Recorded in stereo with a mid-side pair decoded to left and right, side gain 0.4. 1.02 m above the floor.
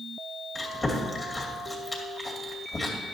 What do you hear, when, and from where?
0.6 s chewing: 25° left, 2 m